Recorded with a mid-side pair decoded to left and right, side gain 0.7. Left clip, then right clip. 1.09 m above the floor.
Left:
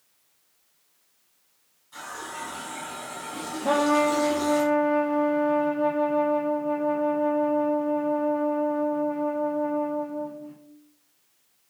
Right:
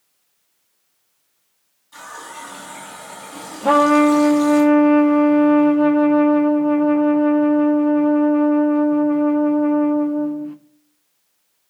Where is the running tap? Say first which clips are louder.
Right 2 dB; 15° right, 6 m.